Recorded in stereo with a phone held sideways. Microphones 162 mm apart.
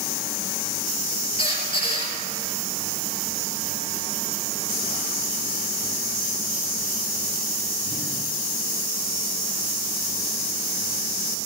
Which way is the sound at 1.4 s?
35° left (ahead or behind).